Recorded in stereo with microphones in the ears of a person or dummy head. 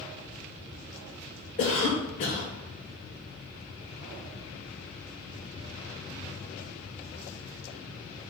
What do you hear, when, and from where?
1.6 s a cough: 45° left (ahead or behind), 0.6 m